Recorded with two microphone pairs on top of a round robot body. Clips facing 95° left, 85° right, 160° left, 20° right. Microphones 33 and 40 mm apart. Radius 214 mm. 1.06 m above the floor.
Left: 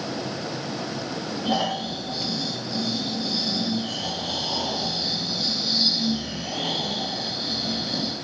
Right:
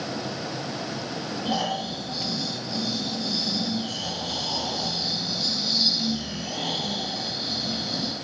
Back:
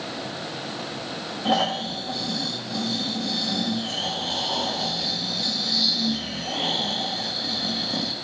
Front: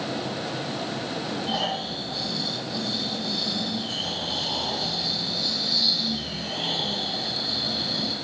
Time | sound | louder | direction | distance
1.4 | snoring | left 2 dB, back 8 dB | straight behind | 0.9 m